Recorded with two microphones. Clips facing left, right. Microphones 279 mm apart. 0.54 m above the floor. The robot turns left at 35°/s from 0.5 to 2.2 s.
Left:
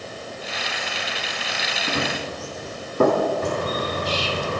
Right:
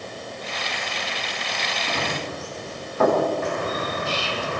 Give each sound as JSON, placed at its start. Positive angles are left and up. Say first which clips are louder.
{"t": 1.9, "sound": "running footsteps", "louder": "left 3 dB", "side_deg": 25, "distance_m": 5.5}
{"t": 3.4, "sound": "a bird", "louder": "left 2 dB", "side_deg": 40, "distance_m": 1.9}